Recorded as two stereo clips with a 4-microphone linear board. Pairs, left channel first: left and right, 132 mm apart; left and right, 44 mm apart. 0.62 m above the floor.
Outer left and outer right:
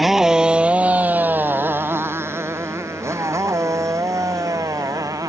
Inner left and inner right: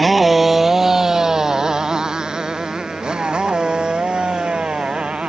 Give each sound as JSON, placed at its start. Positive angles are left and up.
{"t": 0.0, "sound": "a motorcycle", "side_deg": 0}